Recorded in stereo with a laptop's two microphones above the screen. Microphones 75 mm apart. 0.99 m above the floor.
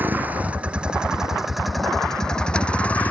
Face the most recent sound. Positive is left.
turn(degrees=20)  # may be behind; listen again after turning